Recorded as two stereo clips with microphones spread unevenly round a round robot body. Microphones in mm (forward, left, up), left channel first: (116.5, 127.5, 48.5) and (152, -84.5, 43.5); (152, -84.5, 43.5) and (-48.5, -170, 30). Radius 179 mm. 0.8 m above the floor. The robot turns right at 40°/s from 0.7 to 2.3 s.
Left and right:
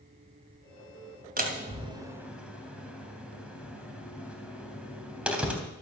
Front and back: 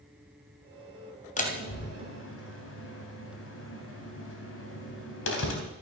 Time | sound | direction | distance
1.4 | a door slam | 35° right | 3.5 m